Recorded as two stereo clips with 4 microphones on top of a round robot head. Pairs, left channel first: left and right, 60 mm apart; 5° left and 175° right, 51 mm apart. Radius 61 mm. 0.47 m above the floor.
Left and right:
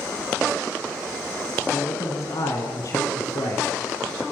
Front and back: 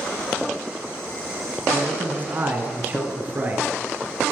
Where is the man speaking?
140° left, 6 m; by 3.7 s 130° left, 8 m.